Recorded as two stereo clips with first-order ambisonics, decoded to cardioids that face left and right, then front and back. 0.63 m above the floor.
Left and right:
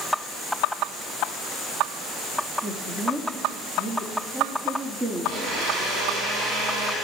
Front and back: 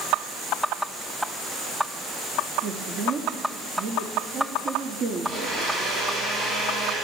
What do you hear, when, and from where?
2.6 s a man speaking: 155° right, 0.8 m
5.2 s a blender: 110° right, 5 m